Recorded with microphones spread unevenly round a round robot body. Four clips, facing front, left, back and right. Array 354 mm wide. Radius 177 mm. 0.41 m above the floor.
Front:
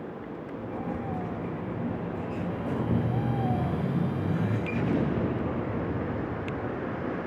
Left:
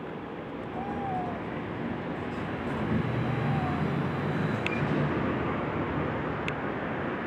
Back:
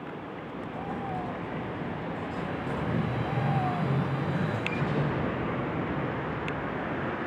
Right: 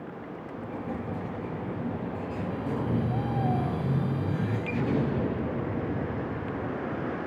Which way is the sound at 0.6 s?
45° right.